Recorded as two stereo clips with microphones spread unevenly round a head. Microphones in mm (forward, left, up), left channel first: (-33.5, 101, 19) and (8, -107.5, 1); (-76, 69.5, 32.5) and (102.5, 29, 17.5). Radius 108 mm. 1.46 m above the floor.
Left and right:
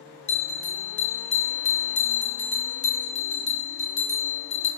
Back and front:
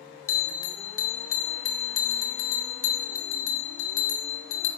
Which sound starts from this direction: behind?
A bell, at 0.3 s.